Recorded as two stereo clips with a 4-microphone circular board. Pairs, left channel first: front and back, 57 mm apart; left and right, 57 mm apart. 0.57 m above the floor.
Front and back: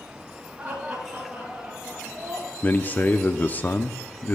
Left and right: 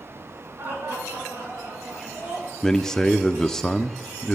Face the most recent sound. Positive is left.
turn(degrees=20)